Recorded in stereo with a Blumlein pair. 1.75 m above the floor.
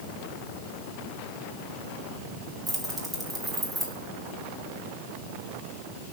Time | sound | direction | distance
2.7 | keys jangling | 15° right | 2 m